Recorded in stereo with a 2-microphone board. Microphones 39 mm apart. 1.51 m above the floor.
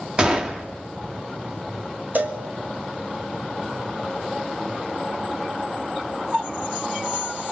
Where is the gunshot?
20° right (ahead or behind), 1.6 m.